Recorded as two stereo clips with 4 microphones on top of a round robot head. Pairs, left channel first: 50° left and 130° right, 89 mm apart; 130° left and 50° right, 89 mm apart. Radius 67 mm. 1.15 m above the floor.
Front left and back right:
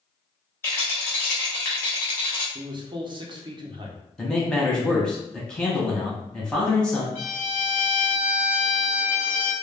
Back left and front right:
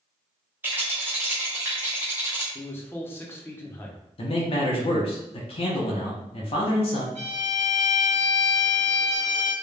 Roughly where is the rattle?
Ahead.